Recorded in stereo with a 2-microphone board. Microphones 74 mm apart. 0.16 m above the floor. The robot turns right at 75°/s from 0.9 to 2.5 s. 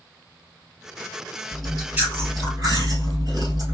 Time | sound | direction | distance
1.5 | chewing | 170° left | 2.5 m